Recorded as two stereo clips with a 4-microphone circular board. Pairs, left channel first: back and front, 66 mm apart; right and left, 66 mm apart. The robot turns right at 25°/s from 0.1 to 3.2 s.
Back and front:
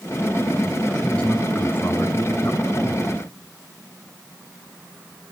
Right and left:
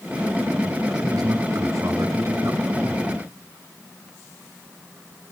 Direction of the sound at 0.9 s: 100° left.